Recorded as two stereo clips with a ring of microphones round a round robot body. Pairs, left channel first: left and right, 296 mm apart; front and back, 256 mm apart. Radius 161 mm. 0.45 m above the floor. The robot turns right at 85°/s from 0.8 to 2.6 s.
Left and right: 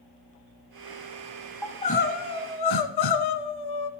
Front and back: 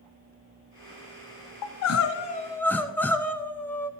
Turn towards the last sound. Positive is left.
turn(degrees=85)